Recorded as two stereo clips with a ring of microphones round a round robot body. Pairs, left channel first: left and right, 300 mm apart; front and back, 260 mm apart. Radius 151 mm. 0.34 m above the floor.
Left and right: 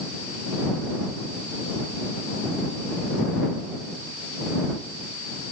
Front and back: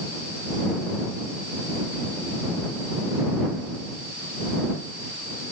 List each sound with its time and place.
Only background noise.